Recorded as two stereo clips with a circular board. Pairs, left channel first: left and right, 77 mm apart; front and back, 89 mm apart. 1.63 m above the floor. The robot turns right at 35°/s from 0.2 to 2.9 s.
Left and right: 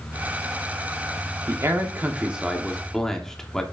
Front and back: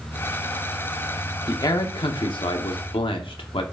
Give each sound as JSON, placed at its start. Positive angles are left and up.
{"t": 1.5, "sound": "a man speaking", "azimuth_deg": -45, "distance_m": 1.0}